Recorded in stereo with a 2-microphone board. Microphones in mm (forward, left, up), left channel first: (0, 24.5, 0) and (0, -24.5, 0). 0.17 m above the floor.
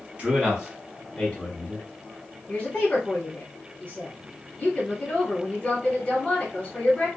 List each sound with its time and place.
0.2 s a man speaking: 25° right (ahead or behind), 1.1 m; by 1.9 s 30° left (ahead or behind), 1.2 m
2.5 s a woman speaking: 15° left (ahead or behind), 1.1 m